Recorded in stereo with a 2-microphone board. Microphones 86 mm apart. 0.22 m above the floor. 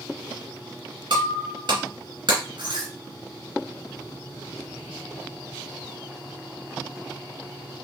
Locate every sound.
1.1 s breaking glass: 65° right (ahead or behind), 1.9 m